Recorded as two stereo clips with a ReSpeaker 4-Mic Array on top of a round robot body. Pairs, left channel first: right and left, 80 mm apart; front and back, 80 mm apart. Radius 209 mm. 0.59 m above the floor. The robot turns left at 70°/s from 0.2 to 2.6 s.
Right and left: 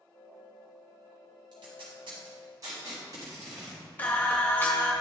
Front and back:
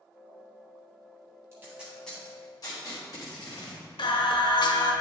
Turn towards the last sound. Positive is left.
turn(degrees=-20)